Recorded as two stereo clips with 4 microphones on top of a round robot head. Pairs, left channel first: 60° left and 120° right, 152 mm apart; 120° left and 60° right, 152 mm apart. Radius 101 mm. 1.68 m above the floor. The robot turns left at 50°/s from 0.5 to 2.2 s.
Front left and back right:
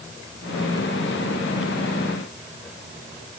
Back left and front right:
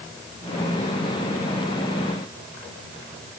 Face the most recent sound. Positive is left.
No sound to turn to.